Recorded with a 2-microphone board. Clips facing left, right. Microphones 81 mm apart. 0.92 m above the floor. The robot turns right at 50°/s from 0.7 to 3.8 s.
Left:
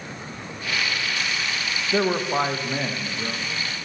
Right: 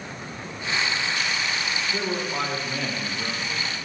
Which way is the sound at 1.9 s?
110° left.